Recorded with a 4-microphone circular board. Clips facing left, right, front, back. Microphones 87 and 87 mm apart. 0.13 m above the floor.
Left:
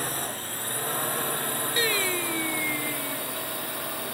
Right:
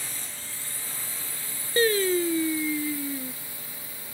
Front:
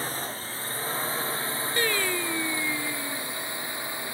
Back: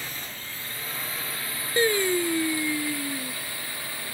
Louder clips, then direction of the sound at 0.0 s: Left 10 dB, front 6 dB; 55° left.